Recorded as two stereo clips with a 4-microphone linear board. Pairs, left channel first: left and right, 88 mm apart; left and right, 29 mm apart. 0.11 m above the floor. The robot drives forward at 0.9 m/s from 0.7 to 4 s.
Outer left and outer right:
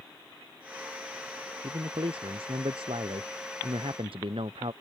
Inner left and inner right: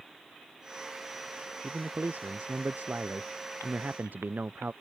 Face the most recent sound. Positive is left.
turn(degrees=-80)